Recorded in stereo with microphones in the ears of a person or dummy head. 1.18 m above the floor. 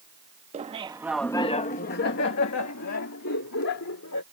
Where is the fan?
I don't hear a fan.